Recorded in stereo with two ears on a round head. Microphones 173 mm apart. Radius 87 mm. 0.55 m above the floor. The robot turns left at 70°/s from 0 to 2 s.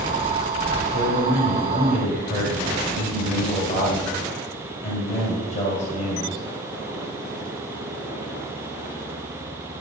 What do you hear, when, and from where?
0.9 s a man speaking: 115° left, 2.5 m; by 6.4 s 40° left, 2.5 m